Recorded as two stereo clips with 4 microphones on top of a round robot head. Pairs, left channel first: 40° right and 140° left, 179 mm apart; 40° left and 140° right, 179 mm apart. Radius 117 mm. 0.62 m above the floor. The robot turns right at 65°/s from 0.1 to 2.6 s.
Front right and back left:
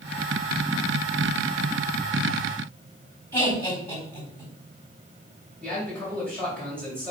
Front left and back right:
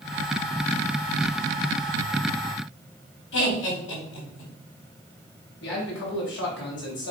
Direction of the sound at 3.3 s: 40° left.